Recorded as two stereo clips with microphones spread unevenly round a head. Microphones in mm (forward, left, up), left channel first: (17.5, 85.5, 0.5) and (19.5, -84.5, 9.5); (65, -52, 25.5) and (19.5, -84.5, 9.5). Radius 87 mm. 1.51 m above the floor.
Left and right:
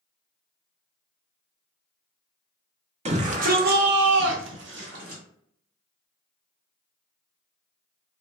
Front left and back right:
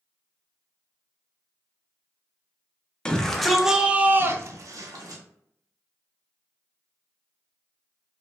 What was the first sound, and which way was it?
A shout, 40° right.